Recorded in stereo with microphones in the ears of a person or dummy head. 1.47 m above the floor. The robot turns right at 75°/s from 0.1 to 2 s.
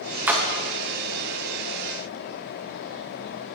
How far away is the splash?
About 0.6 m.